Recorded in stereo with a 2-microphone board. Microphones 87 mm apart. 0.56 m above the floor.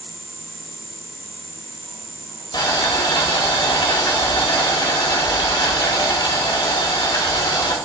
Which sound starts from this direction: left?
Boiling, at 2.5 s.